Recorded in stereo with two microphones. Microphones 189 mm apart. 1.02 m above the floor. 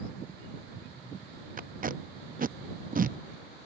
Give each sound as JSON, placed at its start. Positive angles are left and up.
{"t": 1.6, "sound": "tape being pulled", "side_deg": -50}